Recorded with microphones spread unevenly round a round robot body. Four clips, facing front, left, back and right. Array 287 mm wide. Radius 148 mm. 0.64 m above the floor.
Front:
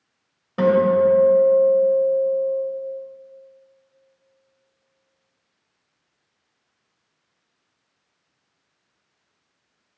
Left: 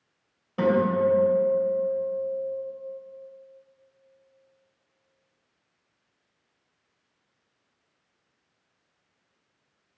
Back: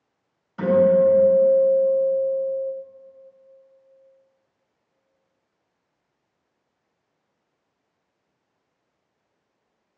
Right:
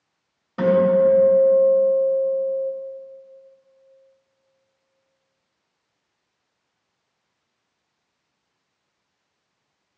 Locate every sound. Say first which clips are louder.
0.6 s a guitar: right 6 dB, even; 5° right, 2.5 m